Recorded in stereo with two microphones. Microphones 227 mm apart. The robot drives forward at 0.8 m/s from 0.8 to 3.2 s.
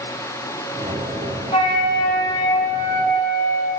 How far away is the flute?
About 0.8 m.